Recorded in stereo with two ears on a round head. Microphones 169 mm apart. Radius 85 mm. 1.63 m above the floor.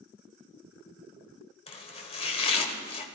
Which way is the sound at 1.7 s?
30° left (ahead or behind).